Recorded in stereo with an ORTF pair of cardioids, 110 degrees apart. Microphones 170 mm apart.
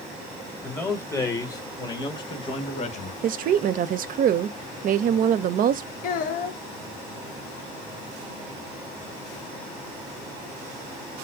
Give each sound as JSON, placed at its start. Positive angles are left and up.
{"t": 0.6, "sound": "a man speaking", "azimuth_deg": 10, "distance_m": 3.0}
{"t": 3.2, "sound": "a woman speaking", "azimuth_deg": -55, "distance_m": 0.7}
{"t": 6.0, "sound": "a child speaking", "azimuth_deg": 55, "distance_m": 0.9}